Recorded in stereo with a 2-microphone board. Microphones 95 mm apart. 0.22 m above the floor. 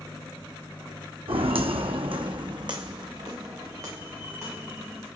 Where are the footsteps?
75° right (ahead or behind), 0.8 m; by 5.0 s 25° right (ahead or behind), 2.5 m.